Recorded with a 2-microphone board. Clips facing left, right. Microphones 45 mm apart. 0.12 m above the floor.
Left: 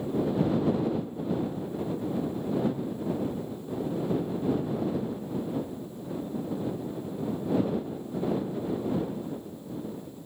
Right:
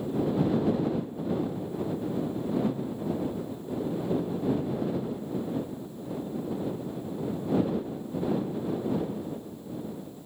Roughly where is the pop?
No pop in this recording.